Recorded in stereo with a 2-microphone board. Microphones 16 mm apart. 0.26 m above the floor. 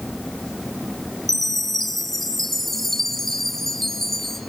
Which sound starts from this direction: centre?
A chime, at 1.3 s.